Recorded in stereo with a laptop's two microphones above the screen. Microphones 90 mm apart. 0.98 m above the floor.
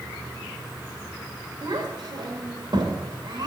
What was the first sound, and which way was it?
A child speaking, 60° right (ahead or behind).